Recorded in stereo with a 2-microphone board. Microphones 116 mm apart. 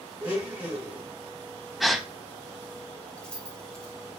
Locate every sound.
0.2 s a blender: 15° right (ahead or behind), 1.9 m
1.8 s a gasp: centre (ahead or behind), 0.6 m
3.2 s keys jangling: 10° left (ahead or behind), 0.9 m